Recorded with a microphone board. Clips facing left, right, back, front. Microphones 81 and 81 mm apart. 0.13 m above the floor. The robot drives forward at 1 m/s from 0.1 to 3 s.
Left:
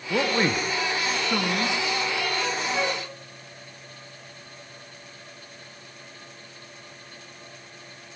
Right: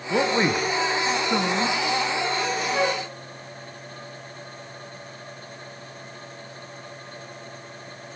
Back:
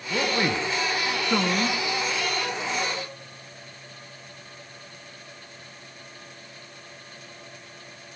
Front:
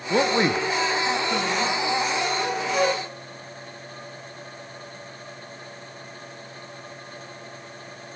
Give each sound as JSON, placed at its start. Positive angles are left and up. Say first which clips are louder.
{"t": 0.1, "sound": "a man speaking", "louder": "right 2 dB, front 4 dB", "azimuth_deg": -10, "distance_m": 1.3}
{"t": 2.7, "sound": "a flute", "louder": "right 6 dB, front 7 dB", "azimuth_deg": -20, "distance_m": 1.8}